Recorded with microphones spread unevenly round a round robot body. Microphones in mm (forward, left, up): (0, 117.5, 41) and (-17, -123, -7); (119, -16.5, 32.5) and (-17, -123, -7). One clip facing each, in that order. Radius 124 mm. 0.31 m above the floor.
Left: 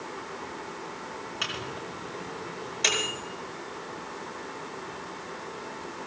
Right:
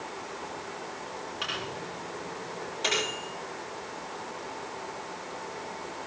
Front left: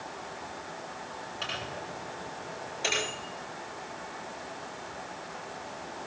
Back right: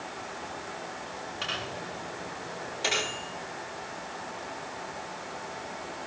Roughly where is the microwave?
Behind left.